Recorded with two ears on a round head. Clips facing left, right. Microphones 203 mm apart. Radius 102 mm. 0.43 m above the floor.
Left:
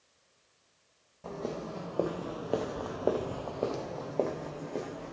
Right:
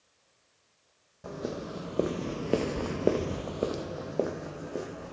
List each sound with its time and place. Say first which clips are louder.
1.2 s footsteps: right 1 dB; 15° right (ahead or behind), 1.1 m; by 5.1 s 10° right (ahead or behind), 1.6 m